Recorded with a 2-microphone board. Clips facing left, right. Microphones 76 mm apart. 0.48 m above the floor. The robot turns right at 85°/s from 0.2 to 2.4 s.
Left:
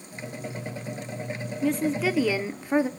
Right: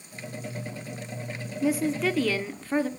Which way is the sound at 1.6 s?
10° right (ahead or behind).